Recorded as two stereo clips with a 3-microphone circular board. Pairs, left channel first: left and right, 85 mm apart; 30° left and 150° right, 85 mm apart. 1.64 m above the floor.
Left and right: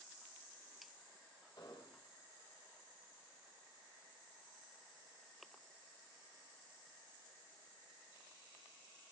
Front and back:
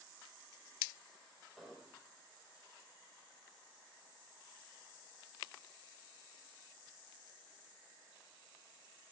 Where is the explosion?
125° left, 3.5 m.